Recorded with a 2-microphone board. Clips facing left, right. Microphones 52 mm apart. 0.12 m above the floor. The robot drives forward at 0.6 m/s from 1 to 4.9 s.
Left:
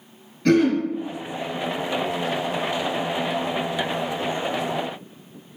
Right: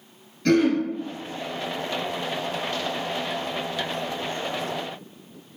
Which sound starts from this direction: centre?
Throat clearing, at 0.5 s.